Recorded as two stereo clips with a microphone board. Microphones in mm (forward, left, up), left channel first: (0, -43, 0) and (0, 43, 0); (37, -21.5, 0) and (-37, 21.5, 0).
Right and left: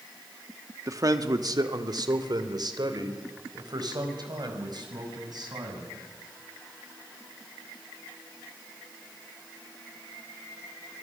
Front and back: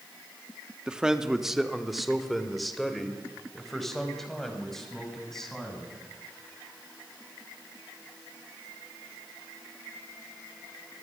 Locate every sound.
0.9 s a man speaking: 75° left, 1.4 m; by 6.0 s 55° left, 7 m